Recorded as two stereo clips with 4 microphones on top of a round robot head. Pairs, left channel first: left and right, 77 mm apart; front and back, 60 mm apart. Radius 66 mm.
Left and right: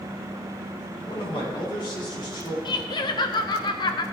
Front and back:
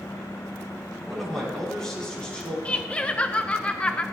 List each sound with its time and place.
1.1 s a man speaking: 90° left, 6 m; by 2.5 s 70° left, 5 m
2.6 s laughter: 70° left, 0.8 m